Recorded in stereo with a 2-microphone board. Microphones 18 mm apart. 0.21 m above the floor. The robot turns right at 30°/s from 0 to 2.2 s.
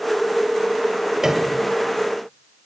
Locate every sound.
1.2 s a piano: 35° right (ahead or behind), 4 m; by 1.6 s 25° right (ahead or behind), 4 m